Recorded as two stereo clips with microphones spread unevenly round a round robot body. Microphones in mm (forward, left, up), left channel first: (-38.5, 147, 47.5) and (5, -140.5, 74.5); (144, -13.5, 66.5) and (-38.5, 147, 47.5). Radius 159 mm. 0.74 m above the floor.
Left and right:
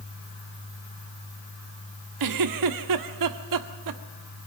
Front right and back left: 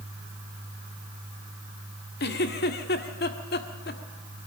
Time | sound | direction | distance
2.2 | a giggle | 95° right | 1.7 m